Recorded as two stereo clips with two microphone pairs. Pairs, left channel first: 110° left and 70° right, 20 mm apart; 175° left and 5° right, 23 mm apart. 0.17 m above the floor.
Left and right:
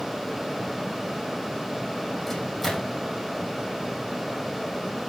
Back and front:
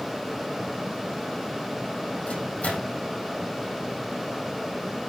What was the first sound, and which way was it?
A microwave, 165° right.